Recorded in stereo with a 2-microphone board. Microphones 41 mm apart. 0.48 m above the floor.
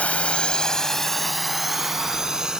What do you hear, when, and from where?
0.0 s a drone: 35° left (ahead or behind); by 2.6 s 15° right (ahead or behind)